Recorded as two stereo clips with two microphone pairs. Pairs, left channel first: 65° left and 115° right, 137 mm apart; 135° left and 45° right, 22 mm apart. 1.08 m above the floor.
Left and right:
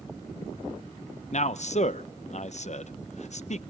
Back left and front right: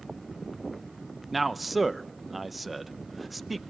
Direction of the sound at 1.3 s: 45° left.